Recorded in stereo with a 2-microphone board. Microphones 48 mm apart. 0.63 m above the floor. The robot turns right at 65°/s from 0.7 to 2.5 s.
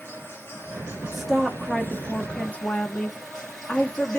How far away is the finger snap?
I don't hear a finger snap.